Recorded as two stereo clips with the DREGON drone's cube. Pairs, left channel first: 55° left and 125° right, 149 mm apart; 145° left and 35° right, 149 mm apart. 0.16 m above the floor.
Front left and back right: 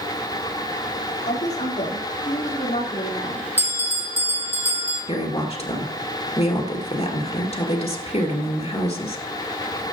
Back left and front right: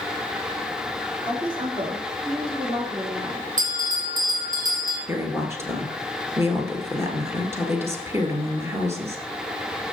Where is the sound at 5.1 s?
30° left, 2 m.